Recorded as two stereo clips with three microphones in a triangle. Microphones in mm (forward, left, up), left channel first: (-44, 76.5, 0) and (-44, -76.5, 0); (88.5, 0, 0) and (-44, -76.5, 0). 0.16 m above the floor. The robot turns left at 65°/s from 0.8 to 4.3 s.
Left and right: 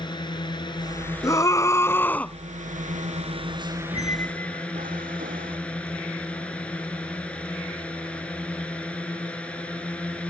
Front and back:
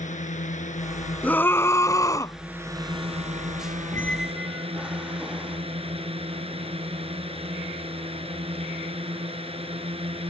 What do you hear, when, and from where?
0.0 s a drone: 40° left; by 10.3 s 170° left
1.2 s a scream: 90° left; by 2.4 s 20° left
3.9 s a squeak: 40° right; by 5.6 s 65° right